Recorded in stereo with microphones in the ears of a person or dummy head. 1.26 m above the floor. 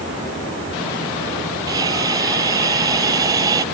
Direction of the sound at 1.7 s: 20° right (ahead or behind).